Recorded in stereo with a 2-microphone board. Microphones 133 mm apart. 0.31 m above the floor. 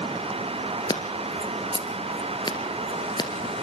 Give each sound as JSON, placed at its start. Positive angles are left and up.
{"t": 0.9, "sound": "scissors", "side_deg": 35, "distance_m": 2.0}